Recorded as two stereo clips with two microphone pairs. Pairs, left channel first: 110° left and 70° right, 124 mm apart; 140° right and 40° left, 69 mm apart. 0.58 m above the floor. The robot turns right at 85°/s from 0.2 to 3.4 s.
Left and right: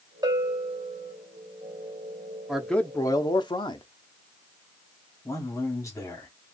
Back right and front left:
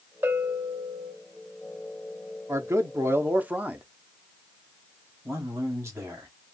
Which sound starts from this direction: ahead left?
A man speaking, at 5.2 s.